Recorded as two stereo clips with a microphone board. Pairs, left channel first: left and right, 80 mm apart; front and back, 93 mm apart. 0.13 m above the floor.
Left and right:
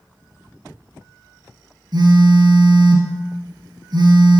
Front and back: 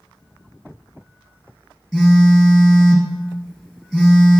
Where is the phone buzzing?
90° right, 2.5 m.